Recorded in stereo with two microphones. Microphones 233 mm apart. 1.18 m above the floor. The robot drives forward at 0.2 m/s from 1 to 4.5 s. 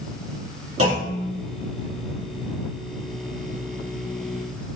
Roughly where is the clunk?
Right.